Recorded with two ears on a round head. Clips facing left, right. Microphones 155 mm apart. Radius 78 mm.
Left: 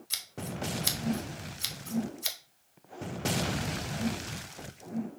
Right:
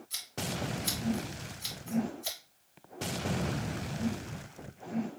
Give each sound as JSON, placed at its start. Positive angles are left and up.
{"t": 0.1, "sound": "scissors", "side_deg": 75, "distance_m": 0.9}